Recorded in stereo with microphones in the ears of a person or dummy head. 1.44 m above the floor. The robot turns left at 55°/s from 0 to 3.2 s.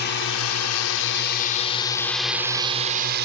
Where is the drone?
50° left (ahead or behind); by 3.3 s 55° right (ahead or behind).